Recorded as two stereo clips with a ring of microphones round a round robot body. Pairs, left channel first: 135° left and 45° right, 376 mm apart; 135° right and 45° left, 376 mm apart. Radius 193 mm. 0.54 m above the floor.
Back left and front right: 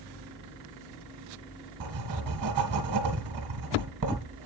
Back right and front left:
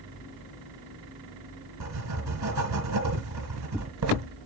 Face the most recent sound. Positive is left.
turn(degrees=0)